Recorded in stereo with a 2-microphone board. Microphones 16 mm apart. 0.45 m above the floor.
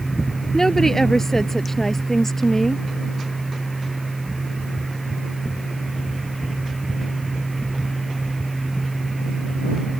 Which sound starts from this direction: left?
A woman speaking, at 0.5 s.